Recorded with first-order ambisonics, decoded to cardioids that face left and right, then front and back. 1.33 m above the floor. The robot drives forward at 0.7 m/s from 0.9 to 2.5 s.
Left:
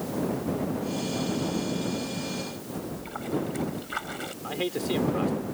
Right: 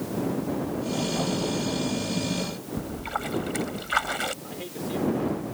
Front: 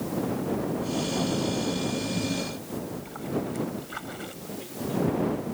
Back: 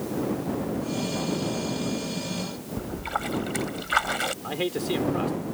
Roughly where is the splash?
Behind right.